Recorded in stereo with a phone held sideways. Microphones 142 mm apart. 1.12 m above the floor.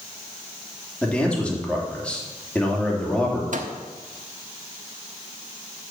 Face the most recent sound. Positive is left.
turn(degrees=-65)  # may be behind; listen again after turning